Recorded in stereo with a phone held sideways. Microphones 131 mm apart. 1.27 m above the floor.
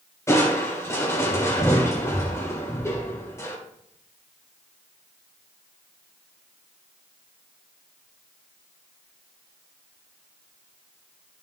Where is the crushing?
20° left (ahead or behind), 2.0 m.